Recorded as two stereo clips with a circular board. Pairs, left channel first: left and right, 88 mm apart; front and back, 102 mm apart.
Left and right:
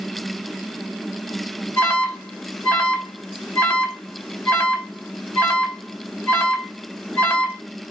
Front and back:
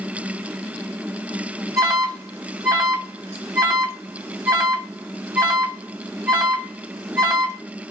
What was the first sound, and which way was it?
An alarm, 140° left.